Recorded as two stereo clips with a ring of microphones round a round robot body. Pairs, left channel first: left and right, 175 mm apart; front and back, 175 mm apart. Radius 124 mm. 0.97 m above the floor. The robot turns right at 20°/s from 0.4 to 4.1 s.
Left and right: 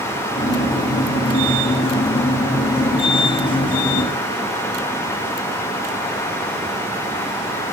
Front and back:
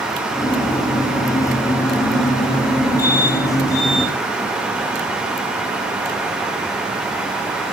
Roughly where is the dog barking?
I don't hear a dog barking.